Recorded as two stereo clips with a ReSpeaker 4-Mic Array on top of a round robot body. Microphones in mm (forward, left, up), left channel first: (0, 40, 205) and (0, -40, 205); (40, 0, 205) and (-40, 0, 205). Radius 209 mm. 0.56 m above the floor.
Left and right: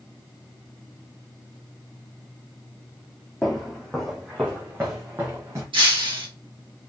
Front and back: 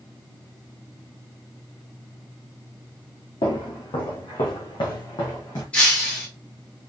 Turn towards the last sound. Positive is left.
turn(degrees=-75)